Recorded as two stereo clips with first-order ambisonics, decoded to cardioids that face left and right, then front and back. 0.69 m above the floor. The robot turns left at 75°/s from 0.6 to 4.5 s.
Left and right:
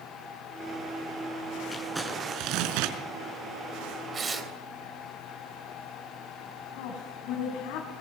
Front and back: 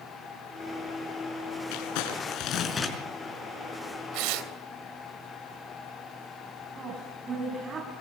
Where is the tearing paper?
155° right, 3 m; by 4.5 s straight behind, 3 m.